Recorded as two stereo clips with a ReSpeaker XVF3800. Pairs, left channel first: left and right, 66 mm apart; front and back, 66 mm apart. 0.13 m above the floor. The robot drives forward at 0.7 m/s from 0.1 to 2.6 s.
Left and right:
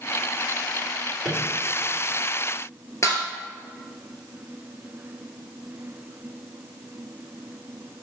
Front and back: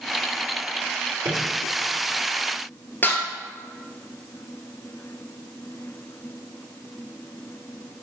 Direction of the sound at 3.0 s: 55° left.